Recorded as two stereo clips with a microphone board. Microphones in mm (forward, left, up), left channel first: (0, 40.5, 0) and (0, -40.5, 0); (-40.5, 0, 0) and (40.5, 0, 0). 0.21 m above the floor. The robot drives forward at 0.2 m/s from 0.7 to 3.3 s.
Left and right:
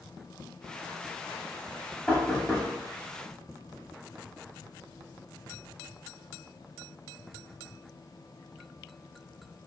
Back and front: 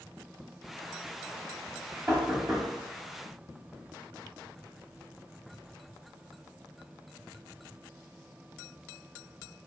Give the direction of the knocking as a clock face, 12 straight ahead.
10 o'clock.